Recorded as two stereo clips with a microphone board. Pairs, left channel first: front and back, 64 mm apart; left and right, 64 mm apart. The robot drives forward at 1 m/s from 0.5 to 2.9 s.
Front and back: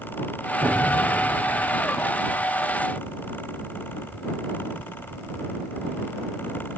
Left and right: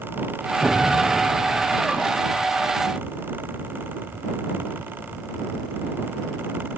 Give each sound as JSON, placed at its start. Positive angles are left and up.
{"t": 0.6, "sound": "an explosion", "azimuth_deg": 180, "distance_m": 1.0}